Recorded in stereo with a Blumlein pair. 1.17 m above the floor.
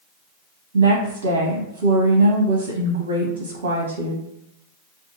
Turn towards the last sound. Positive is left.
turn(degrees=-60)